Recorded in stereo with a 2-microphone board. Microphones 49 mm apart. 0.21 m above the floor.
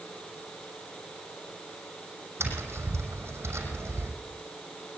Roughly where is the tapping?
Right.